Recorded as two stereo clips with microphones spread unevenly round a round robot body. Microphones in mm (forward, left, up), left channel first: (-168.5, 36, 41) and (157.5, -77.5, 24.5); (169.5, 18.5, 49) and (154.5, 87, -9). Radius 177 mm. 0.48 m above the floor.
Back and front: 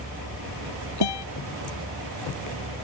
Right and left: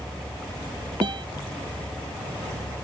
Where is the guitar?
135° left.